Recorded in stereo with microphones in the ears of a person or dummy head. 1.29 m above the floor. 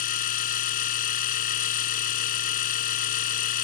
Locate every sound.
0.0 s a machine running: 45° left (ahead or behind)